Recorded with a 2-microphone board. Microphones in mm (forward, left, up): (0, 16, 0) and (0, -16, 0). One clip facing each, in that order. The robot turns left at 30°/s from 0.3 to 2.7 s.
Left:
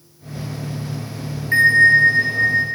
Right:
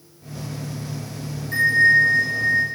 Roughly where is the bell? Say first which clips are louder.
Left 4 dB; left.